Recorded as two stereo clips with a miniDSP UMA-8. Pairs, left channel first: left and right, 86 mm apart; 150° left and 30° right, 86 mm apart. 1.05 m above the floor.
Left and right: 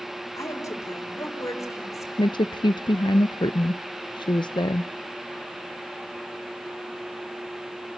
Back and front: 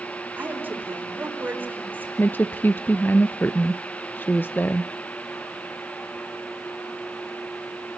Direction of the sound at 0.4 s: 40° left.